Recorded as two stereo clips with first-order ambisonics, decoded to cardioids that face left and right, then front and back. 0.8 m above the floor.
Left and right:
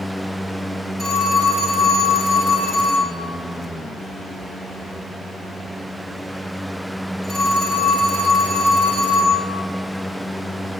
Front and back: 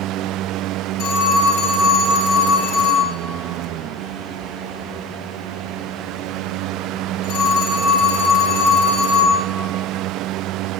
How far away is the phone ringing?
About 5.5 m.